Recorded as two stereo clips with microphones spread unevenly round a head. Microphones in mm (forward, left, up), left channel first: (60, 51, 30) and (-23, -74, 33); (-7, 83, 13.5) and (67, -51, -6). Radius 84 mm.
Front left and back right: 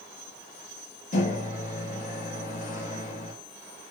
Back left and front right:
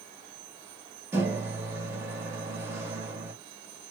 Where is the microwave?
20° left, 1.9 m.